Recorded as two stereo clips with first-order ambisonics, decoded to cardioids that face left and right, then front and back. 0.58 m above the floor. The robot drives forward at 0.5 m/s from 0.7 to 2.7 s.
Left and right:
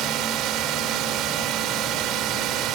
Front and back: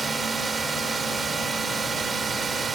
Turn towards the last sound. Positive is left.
turn(degrees=-115)